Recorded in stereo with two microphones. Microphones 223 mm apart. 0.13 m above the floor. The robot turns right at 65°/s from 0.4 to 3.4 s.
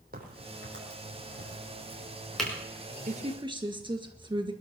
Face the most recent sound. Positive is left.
turn(degrees=-25)  # may be behind; listen again after turning